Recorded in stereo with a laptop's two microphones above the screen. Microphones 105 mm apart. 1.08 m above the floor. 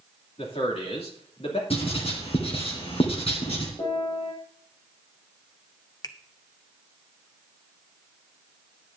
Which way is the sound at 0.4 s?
70° left (ahead or behind).